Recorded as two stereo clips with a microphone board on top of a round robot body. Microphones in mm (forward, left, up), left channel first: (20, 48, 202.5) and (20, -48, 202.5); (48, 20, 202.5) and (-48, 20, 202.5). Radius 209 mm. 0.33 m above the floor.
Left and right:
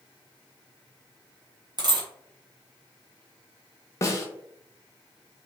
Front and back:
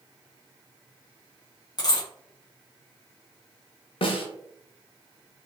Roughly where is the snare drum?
Ahead left.